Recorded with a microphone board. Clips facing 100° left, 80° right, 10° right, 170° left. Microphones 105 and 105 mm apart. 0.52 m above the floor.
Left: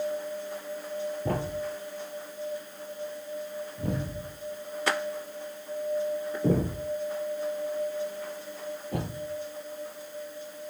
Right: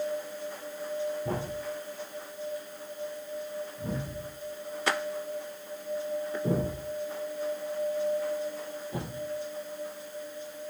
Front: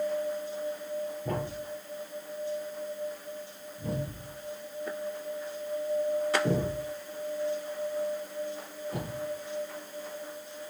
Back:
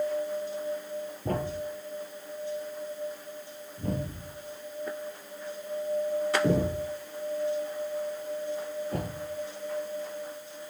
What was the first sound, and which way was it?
A thud, 130° left.